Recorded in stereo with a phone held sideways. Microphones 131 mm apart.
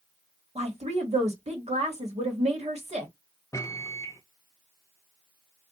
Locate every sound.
0.6 s a woman speaking: 55° right (ahead or behind), 1.3 m
3.5 s a microwave: 25° left (ahead or behind), 0.5 m